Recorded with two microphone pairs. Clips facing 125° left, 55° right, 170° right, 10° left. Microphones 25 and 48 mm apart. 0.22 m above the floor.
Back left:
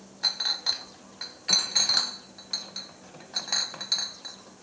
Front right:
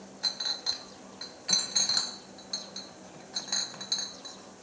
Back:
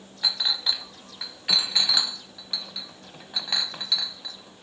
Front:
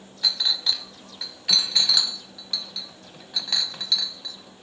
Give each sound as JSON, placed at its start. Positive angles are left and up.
{"t": 0.2, "sound": "a clink", "azimuth_deg": 135, "distance_m": 0.7}